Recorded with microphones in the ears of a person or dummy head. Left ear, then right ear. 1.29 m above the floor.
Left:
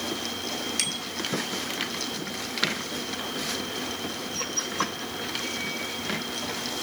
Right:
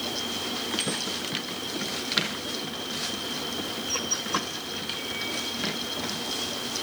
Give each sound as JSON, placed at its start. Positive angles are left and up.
{"t": 0.8, "sound": "a bicycle bell", "side_deg": 80, "distance_m": 3.0}